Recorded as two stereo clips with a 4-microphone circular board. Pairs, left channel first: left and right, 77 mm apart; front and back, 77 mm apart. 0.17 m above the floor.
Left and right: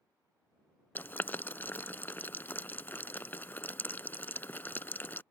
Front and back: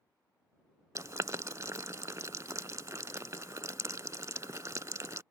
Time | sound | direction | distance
0.9 | boiling | 145° left | ?